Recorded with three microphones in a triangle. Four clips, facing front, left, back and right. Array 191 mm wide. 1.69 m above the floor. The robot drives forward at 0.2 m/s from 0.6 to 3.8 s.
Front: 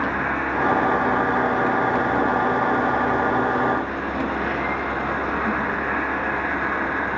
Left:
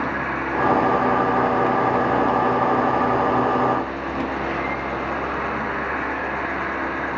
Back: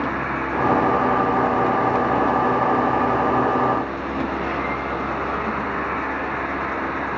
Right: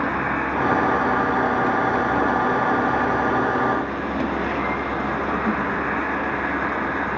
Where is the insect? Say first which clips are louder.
Right 2 dB, even; 75° right, 4 m; by 7.2 s 85° right, 4 m.